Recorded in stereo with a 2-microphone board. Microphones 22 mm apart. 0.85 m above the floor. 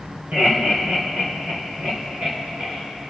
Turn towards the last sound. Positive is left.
turn(degrees=-75)  # may be behind; listen again after turning